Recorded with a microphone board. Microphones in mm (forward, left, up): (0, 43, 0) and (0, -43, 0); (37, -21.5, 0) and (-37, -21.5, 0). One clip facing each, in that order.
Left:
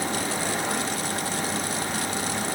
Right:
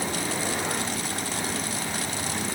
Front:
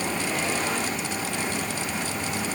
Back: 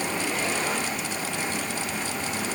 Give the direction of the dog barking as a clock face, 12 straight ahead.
No dog barking in this recording.